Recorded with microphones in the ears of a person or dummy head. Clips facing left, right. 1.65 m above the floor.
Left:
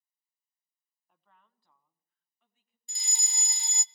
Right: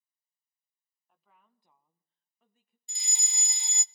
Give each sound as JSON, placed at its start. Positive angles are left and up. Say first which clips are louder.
{"t": 1.1, "sound": "a woman speaking", "louder": "even", "side_deg": -5, "distance_m": 1.3}
{"t": 2.9, "sound": "a fire alarm", "louder": "left 2 dB", "side_deg": 30, "distance_m": 0.6}